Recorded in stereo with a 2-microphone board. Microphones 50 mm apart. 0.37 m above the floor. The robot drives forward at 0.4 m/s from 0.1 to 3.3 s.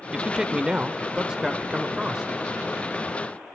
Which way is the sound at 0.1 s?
15° right (ahead or behind).